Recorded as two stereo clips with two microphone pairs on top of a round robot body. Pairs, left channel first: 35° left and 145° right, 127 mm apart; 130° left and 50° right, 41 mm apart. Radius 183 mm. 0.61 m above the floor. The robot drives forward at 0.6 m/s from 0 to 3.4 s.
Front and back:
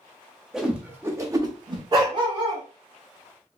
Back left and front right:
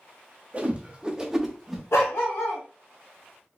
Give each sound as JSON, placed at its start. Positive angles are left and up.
{"t": 0.5, "sound": "a whoosh", "azimuth_deg": -80, "distance_m": 1.1}
{"t": 1.9, "sound": "a dog barking", "azimuth_deg": 150, "distance_m": 1.2}